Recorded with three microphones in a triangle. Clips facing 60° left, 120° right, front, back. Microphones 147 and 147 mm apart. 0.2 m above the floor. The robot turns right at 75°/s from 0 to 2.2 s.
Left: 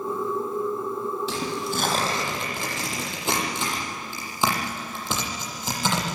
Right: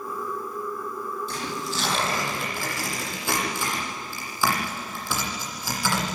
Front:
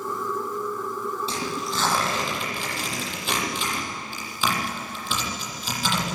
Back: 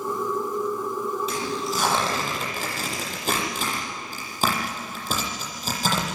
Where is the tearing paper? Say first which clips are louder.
Left 3 dB, back 2 dB; 60° left, 8.5 m; by 6.2 s 130° left, 8.5 m.